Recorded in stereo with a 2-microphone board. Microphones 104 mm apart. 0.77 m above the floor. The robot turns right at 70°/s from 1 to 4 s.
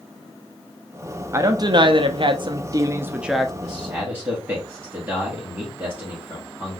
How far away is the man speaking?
About 1.5 m.